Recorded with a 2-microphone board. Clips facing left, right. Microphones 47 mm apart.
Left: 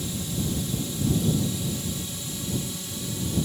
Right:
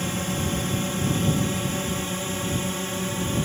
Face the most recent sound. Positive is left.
turn(degrees=-45)  # may be behind; listen again after turning